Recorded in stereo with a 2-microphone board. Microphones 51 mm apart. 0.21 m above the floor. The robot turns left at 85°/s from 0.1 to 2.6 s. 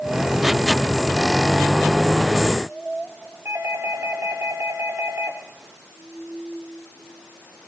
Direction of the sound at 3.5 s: 60° right (ahead or behind).